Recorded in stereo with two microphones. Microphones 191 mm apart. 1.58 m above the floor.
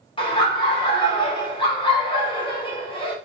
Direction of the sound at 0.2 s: 25° left (ahead or behind).